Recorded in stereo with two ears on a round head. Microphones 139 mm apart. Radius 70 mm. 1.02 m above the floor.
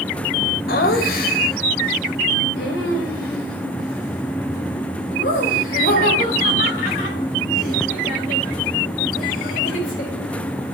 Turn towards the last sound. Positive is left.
turn(degrees=60)  # may be behind; listen again after turning